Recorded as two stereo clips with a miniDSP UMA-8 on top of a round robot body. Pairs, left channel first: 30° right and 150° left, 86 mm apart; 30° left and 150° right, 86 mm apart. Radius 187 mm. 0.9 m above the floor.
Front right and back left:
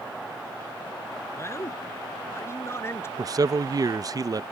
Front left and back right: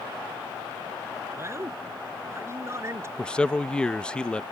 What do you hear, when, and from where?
1.4 s a man speaking: 90° right
3.2 s a man speaking: 110° left